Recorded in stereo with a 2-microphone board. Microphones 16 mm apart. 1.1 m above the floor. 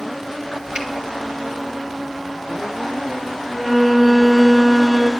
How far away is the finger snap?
About 2 m.